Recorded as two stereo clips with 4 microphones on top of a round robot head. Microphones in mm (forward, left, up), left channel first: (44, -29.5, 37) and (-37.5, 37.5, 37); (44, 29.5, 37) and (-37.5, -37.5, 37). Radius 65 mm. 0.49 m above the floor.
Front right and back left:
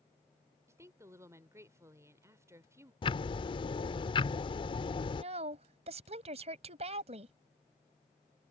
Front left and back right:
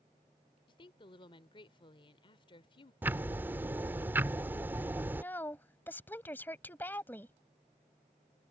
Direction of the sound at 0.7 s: 80° left.